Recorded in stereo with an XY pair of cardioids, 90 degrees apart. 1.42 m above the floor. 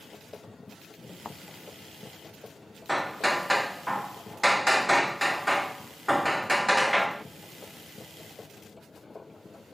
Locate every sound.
0.0 s a machine running: 25° left
1.2 s a thud: 25° left
2.9 s hammering: straight ahead